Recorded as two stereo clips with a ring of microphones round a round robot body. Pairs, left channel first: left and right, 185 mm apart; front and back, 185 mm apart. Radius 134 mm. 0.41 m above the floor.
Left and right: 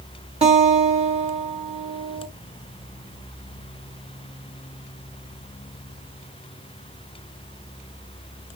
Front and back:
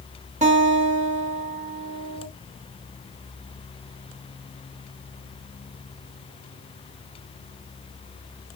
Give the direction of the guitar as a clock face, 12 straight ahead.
5 o'clock.